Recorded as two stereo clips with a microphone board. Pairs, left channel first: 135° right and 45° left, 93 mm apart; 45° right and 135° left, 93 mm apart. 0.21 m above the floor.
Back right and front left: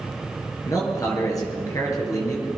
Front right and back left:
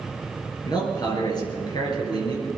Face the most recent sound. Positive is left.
turn(degrees=-85)